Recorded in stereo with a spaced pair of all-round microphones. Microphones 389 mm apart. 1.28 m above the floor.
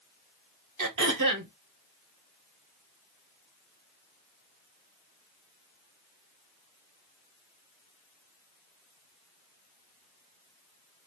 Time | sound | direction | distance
0.8 | throat clearing | 50° right (ahead or behind) | 0.8 m